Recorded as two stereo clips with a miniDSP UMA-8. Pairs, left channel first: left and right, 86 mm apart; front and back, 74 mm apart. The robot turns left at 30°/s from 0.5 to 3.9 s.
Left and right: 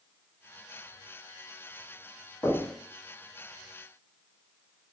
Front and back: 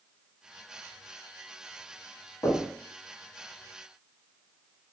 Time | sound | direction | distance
2.4 | knocking | 30° left | 1.2 m